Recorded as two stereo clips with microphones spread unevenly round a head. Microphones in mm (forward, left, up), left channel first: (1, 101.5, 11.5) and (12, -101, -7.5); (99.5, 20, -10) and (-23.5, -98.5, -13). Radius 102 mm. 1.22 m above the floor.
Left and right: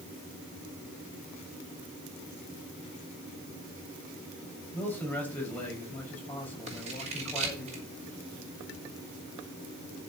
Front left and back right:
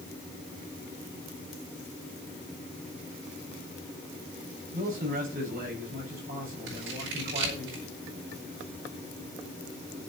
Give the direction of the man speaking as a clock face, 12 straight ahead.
6 o'clock.